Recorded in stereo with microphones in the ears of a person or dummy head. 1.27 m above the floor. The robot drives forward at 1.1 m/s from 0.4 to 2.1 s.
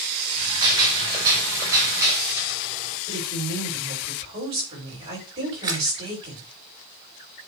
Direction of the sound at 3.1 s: 30° right (ahead or behind).